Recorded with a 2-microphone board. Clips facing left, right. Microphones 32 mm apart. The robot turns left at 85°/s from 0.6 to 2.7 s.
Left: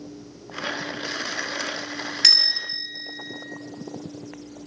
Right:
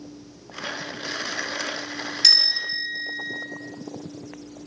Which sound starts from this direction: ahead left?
A bell, at 2.2 s.